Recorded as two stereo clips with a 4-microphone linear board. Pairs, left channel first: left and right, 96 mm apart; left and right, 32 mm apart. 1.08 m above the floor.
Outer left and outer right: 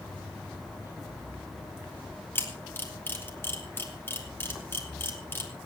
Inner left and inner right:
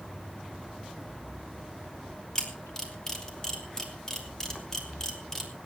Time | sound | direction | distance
2.4 | a camera shutter | 20° left (ahead or behind) | 3 m